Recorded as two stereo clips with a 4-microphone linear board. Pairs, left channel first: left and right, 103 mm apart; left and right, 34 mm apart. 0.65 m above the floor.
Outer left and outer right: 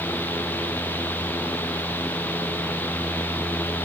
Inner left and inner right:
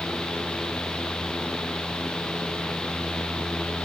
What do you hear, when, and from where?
Only background noise.